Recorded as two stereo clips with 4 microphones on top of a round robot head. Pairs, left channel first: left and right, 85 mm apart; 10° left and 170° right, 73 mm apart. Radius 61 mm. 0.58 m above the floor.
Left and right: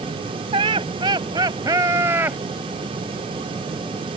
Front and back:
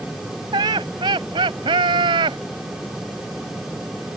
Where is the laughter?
125° right; by 2.4 s 165° right.